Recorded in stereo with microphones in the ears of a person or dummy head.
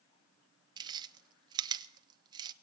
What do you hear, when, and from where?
0.8 s chewing: 25° right (ahead or behind), 0.6 m